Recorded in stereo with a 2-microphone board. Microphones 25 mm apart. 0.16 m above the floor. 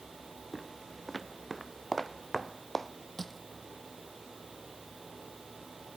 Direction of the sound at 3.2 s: 10° left (ahead or behind).